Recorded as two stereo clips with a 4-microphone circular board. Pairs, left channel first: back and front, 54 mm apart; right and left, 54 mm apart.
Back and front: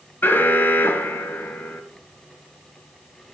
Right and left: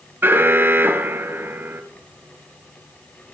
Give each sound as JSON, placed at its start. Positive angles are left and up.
{"t": 0.2, "sound": "an alarm", "azimuth_deg": 135, "distance_m": 1.8}